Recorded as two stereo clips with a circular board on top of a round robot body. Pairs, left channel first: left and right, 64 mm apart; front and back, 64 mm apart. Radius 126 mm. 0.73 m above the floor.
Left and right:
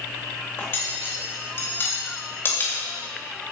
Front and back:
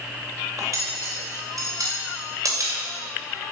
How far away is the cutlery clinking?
About 2 m.